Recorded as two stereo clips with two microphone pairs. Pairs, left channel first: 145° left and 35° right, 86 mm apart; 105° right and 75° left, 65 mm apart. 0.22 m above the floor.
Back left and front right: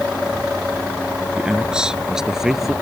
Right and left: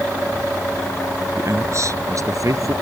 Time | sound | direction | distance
1.4 | a man speaking | 40° left | ?